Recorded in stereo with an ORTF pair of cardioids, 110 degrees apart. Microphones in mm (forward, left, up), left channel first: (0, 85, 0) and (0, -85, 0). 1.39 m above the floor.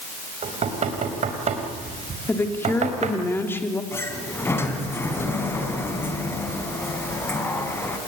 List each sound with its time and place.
0.4 s knocking: 45° right, 4.5 m
2.3 s a woman speaking: 15° left, 3.5 m
3.9 s a sliding door: 15° left, 4 m